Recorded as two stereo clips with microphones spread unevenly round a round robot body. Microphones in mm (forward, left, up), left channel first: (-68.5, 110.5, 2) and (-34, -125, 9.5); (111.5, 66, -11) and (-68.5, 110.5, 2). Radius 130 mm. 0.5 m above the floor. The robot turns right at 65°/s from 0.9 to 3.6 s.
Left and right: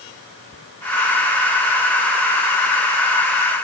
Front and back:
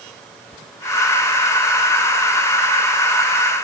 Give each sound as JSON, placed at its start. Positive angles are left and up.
{"t": 0.5, "sound": "a thud", "azimuth_deg": 35}